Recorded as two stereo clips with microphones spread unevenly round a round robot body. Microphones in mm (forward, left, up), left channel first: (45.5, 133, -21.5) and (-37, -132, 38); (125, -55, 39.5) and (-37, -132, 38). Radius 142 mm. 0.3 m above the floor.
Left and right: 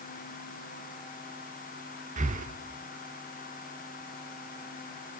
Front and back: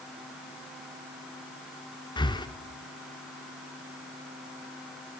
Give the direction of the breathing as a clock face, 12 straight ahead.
1 o'clock.